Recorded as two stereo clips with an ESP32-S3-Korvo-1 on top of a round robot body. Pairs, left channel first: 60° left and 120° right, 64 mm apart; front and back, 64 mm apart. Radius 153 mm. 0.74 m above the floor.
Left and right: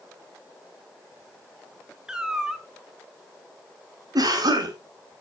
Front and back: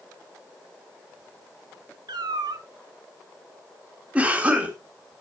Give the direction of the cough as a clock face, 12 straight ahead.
4 o'clock.